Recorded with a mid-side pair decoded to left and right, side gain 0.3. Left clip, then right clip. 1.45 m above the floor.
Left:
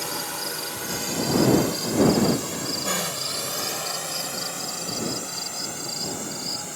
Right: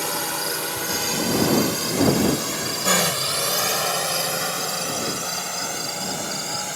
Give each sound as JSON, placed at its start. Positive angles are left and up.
{"t": 0.0, "sound": "a drone", "azimuth_deg": -55}